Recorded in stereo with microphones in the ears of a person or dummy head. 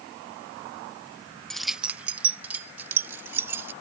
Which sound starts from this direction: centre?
Keys jangling, at 1.5 s.